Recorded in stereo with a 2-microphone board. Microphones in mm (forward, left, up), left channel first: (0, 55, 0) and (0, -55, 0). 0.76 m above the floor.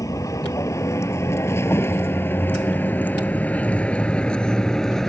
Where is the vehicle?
30° left (ahead or behind); by 5.1 s 5° left (ahead or behind).